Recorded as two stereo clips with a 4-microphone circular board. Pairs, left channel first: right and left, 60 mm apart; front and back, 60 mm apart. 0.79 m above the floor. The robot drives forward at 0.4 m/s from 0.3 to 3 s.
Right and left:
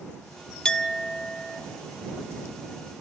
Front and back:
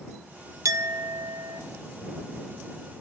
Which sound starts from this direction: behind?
A clink, at 0.7 s.